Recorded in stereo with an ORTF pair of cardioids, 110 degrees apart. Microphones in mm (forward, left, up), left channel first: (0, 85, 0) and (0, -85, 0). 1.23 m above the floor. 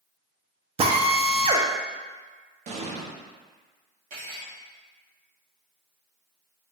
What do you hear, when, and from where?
0.8 s a drill: 35° right, 0.6 m
2.7 s an explosion: 45° right, 0.8 m
4.1 s cutlery clinking: 60° right, 1.6 m